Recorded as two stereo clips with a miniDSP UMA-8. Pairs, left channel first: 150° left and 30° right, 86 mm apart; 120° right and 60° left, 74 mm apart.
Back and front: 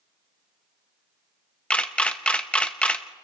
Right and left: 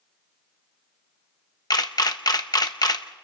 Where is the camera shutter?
135° right, 0.9 m.